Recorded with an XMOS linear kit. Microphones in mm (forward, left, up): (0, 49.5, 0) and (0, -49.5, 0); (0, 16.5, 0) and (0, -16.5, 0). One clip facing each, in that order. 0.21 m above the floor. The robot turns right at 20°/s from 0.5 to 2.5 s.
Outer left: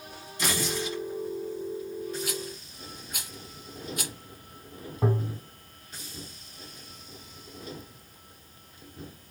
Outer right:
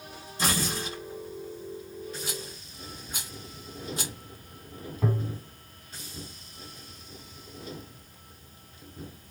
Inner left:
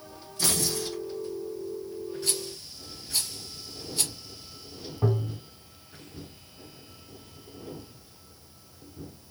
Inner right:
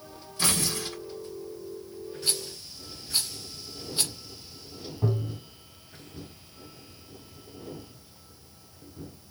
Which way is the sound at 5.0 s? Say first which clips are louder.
Outer left 2 dB, inner left 2 dB; 30° left (ahead or behind).